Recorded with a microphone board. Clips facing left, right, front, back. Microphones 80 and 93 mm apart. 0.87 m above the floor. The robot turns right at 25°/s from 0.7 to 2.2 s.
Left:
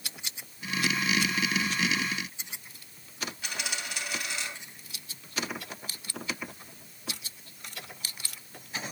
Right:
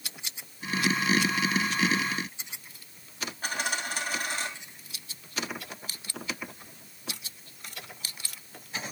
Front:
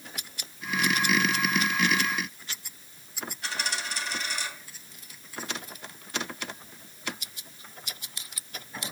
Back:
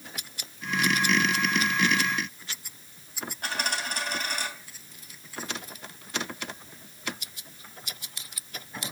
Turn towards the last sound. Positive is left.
turn(degrees=-140)